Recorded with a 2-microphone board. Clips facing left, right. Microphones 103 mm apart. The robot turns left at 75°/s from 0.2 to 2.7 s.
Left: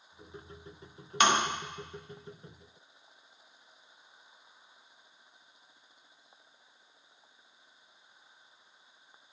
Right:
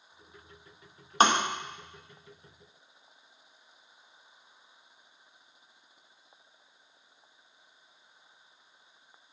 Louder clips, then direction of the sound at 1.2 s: Right 3 dB; 35° right (ahead or behind).